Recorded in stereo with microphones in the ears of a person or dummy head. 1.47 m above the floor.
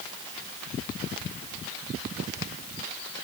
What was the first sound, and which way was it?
Only background noise.